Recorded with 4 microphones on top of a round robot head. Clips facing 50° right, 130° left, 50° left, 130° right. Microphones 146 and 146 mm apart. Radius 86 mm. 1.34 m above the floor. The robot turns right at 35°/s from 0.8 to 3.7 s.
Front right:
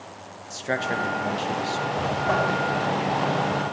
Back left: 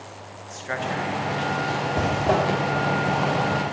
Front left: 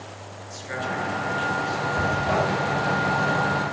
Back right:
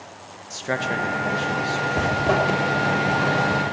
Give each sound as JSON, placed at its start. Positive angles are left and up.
{"t": 0.5, "sound": "a man speaking", "azimuth_deg": -105, "distance_m": 1.4}
{"t": 2.0, "sound": "a zipper", "azimuth_deg": 180, "distance_m": 2.5}